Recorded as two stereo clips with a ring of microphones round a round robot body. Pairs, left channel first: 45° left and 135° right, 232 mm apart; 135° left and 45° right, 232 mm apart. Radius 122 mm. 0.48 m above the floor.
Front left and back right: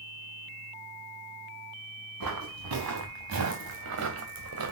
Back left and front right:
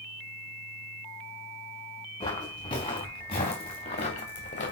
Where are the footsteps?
155° right, 4 m; by 4.7 s 165° right, 2 m.